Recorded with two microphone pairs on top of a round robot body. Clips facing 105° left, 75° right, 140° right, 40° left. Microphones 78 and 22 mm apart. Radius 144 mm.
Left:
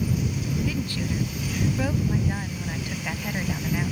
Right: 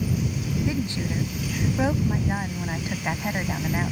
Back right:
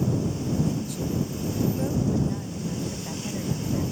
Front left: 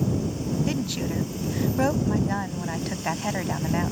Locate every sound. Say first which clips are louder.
0.7 s a woman speaking: right 1 dB, front left 2 dB; 5° right